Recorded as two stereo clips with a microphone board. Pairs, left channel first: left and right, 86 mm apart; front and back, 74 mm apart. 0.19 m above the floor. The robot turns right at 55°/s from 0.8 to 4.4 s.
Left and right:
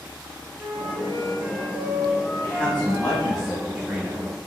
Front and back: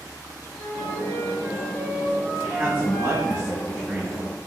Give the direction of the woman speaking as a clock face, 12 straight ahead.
8 o'clock.